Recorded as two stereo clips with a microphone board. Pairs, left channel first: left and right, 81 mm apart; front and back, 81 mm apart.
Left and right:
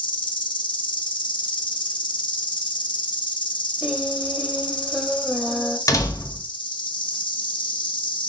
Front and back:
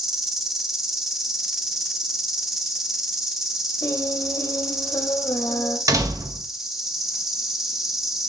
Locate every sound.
0.0 s an insect: 95° left, 0.8 m
3.8 s singing: 15° right, 1.0 m
5.9 s a door slam: 135° left, 0.8 m